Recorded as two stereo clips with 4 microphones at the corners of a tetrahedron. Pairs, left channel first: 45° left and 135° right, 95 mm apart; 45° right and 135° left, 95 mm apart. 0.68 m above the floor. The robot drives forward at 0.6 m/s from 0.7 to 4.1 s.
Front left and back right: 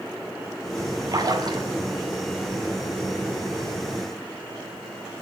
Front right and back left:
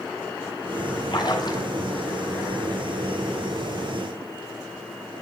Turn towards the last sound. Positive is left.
turn(degrees=-120)